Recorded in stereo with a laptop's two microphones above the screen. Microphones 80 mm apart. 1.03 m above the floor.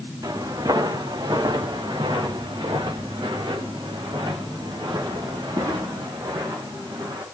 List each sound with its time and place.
0.2 s footsteps: 55° right (ahead or behind), 5 m; by 7.2 s 50° right (ahead or behind), 9 m